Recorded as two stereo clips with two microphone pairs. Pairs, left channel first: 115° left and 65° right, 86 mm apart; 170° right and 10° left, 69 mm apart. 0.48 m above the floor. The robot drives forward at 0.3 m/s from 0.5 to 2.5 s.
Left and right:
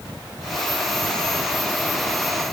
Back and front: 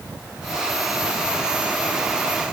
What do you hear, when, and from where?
Only background noise.